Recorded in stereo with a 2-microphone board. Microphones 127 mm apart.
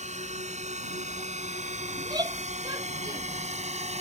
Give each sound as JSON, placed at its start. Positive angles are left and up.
{"t": 0.0, "sound": "a drone", "side_deg": -70}
{"t": 2.0, "sound": "a shout", "side_deg": -30}